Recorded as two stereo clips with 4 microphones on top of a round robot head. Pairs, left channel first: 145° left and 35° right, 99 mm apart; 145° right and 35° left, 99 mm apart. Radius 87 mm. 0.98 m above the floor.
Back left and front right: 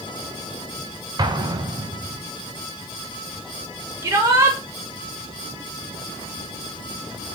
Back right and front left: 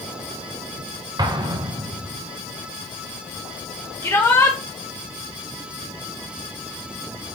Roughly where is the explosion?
Ahead.